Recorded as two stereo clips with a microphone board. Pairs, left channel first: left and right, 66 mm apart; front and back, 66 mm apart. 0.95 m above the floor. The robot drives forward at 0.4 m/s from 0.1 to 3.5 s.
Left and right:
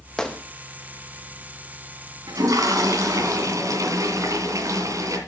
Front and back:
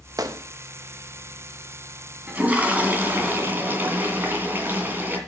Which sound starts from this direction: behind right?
A toilet flushing, at 2.3 s.